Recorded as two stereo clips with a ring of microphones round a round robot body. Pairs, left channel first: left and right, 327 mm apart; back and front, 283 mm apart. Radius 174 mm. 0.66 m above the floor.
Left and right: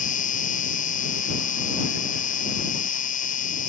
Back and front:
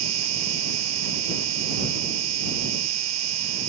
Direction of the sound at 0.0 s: 25° left.